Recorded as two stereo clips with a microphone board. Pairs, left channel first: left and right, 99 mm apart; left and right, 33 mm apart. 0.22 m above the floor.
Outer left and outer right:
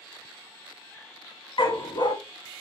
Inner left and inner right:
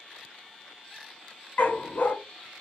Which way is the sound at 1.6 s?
55° left (ahead or behind).